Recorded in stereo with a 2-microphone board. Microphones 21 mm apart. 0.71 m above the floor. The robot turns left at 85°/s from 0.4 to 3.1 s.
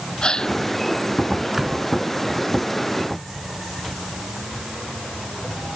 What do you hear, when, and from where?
0.2 s a gasp: 40° left (ahead or behind); by 0.6 s 60° left (ahead or behind)
1.5 s a door slam: 25° right (ahead or behind); by 1.9 s 50° right (ahead or behind)